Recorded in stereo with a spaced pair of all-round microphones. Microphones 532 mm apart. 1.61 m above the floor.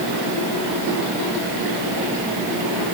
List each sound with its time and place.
Only background noise.